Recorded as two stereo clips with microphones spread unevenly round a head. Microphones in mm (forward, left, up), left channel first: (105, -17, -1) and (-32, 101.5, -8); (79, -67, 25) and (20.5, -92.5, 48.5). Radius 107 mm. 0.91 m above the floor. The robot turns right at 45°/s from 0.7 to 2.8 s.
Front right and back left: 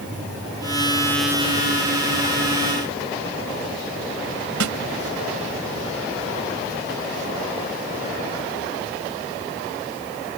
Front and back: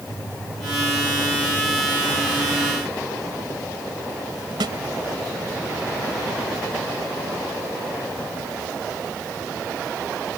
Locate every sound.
4.6 s a snare drum: 165° left